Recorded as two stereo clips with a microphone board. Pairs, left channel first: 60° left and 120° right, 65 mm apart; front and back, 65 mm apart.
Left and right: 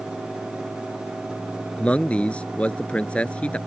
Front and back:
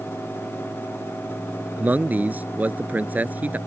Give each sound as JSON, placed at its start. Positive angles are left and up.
{"t": 1.8, "sound": "a man speaking", "azimuth_deg": 125}